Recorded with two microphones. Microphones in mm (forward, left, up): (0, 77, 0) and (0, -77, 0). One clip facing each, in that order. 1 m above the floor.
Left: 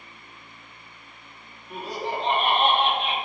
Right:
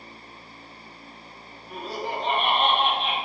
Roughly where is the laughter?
Centre.